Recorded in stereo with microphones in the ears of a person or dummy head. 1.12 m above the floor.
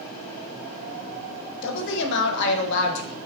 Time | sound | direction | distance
1.6 | a woman speaking | 55° left (ahead or behind) | 0.5 m